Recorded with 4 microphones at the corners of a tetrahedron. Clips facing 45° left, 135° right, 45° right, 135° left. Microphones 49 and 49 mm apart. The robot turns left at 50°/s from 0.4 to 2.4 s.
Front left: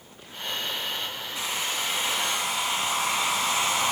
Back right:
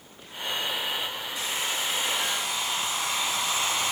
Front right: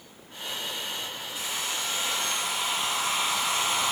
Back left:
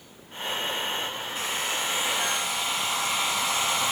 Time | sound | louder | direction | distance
1.4 | a hair dryer | front left 1 dB, back left 3 dB | 95° left | 1.8 m